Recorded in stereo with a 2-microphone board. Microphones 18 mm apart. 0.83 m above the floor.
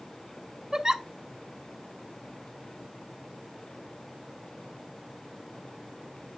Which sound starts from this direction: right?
A giggle, at 0.7 s.